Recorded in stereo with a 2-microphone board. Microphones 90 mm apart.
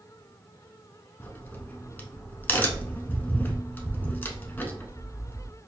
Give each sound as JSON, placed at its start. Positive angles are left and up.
{"t": 1.2, "sound": "a crack", "side_deg": 20, "distance_m": 0.7}